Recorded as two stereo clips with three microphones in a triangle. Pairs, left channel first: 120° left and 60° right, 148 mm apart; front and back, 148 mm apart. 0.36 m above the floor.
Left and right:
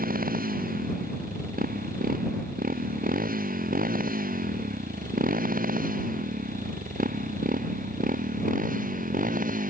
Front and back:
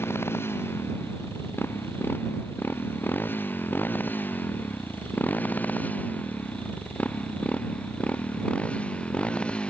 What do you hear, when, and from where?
0.0 s a motorcycle: 75° right; by 9.7 s 85° right